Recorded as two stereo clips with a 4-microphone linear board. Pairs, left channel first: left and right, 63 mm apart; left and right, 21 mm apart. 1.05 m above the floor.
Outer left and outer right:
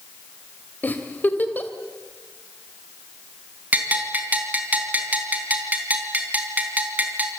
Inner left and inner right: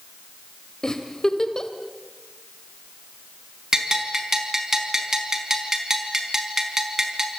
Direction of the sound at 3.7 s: 25° right (ahead or behind).